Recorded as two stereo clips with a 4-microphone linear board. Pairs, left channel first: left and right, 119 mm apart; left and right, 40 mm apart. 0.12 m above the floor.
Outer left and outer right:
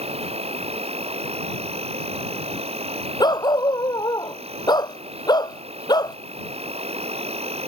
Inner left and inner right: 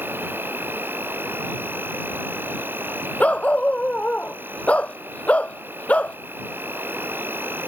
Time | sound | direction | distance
0.0 | an insect | 60° right (ahead or behind) | ?
3.2 | a dog barking | 35° left (ahead or behind) | ?